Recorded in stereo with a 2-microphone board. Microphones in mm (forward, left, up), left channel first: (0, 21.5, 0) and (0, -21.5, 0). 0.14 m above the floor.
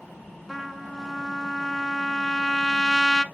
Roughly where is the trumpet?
Centre.